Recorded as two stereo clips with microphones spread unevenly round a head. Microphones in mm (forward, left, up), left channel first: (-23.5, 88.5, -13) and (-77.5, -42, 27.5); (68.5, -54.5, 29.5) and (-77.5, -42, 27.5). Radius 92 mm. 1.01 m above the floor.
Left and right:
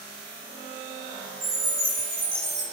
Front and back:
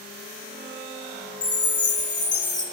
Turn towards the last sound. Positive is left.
turn(degrees=-70)